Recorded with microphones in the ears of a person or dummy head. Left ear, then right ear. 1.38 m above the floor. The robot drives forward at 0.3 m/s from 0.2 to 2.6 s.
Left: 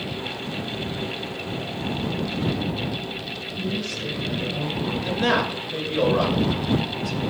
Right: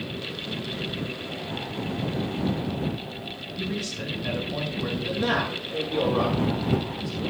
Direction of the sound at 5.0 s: 15° left (ahead or behind).